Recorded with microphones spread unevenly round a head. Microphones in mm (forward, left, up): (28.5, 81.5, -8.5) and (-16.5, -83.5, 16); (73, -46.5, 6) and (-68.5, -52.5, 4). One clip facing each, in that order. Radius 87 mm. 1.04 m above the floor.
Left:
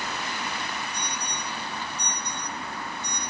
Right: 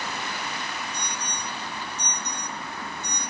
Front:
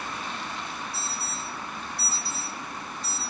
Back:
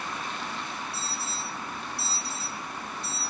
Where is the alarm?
155° right, 7 m.